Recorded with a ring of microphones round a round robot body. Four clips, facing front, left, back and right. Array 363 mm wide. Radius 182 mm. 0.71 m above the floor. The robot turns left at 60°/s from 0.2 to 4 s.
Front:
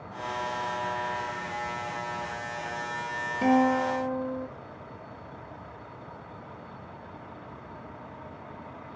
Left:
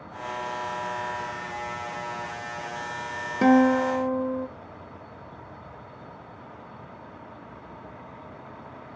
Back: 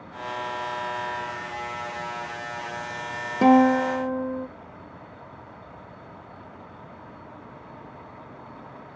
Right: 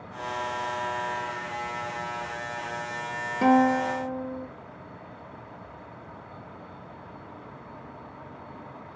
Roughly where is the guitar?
Behind left.